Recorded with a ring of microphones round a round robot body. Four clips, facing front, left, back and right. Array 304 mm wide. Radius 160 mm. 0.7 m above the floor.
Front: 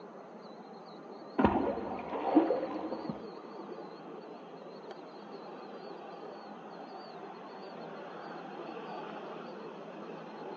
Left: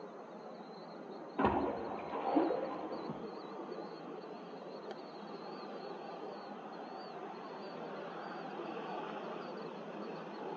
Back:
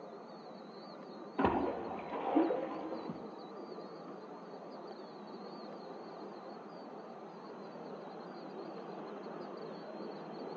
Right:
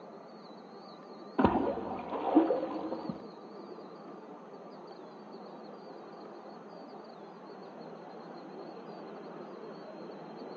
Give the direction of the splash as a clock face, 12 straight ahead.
2 o'clock.